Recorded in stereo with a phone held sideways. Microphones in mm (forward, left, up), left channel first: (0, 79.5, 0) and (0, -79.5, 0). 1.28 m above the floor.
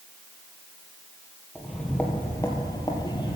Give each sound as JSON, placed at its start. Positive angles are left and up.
{"t": 1.6, "sound": "footsteps", "side_deg": 0, "distance_m": 1.7}